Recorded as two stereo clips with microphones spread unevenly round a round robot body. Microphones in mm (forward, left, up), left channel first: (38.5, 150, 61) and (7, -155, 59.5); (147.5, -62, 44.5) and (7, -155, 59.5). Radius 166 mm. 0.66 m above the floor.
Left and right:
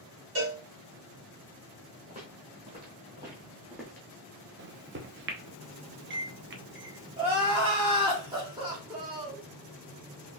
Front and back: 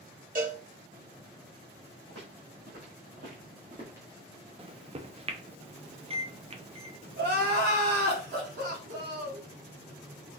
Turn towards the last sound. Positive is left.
turn(degrees=-170)